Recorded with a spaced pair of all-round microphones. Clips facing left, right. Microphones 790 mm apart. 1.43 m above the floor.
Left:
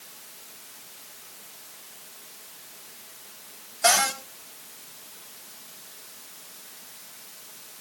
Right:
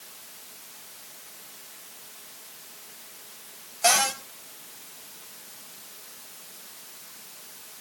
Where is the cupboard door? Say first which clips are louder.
Left 1 dB; 45° left (ahead or behind), 5 m.